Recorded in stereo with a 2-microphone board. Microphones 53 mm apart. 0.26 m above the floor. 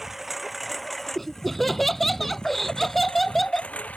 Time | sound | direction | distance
0.0 | a lawn mower | 10° right (ahead or behind) | ?
1.1 | laughter | centre (ahead or behind) | ?